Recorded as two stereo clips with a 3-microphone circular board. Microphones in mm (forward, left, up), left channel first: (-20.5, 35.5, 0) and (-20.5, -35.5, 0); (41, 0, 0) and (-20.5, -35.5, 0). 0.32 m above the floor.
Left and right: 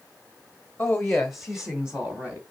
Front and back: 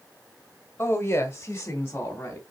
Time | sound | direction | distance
0.8 | a woman speaking | 35° left | 1.1 m